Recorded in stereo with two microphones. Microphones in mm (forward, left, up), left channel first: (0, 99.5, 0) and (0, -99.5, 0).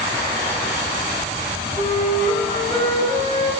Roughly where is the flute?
Left.